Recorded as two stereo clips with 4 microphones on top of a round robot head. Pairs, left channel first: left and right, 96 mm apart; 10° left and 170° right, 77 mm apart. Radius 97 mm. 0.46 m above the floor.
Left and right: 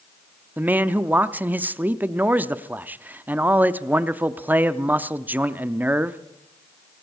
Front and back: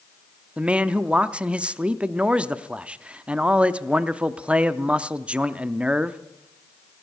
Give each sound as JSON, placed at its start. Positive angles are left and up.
{"t": 0.6, "sound": "a man speaking", "azimuth_deg": -125, "distance_m": 0.7}